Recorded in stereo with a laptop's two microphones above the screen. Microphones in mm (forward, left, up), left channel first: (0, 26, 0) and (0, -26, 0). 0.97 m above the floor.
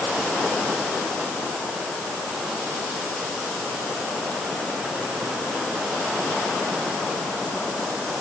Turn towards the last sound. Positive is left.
No sound to turn to.